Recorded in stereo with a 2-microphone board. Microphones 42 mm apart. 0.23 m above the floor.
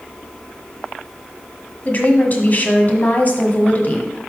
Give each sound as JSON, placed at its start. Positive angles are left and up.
{"t": 1.9, "sound": "a woman speaking", "side_deg": 40, "distance_m": 1.2}